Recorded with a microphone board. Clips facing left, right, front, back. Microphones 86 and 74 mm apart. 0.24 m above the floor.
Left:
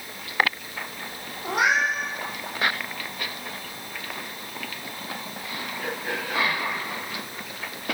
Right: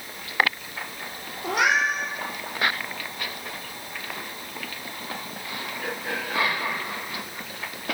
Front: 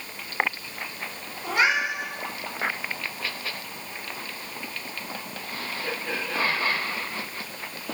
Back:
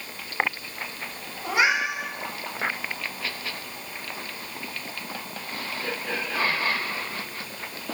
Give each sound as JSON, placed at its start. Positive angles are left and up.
{"t": 1.4, "sound": "a cat meowing", "azimuth_deg": -95, "distance_m": 2.0}